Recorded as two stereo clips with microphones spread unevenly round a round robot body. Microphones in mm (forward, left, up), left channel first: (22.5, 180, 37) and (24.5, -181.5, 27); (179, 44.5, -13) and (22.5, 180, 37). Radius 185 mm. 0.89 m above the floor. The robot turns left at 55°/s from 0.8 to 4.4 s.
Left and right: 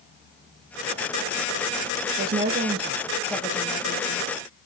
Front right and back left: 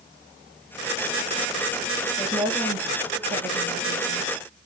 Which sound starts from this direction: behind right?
A woman speaking, at 2.2 s.